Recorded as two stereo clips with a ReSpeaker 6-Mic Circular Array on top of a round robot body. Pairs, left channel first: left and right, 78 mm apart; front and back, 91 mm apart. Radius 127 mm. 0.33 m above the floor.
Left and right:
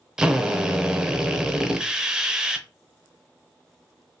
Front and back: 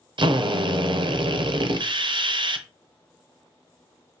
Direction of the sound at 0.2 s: 170° right.